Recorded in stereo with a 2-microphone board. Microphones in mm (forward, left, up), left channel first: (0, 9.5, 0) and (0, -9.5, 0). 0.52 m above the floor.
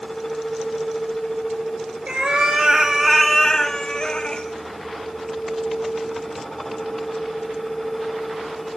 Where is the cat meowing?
65° right (ahead or behind), 1.3 m; by 4.5 s 55° left (ahead or behind), 1.6 m.